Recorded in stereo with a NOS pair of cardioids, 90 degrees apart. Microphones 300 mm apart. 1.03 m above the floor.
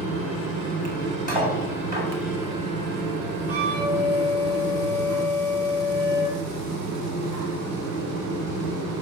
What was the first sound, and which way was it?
A fan, 55° right.